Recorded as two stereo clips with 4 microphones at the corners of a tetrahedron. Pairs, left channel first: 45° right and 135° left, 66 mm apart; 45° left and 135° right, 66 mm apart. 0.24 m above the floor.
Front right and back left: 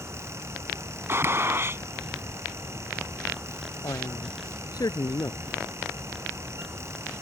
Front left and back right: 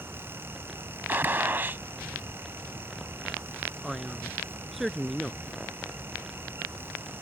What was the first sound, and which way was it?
A gunshot, 170° left.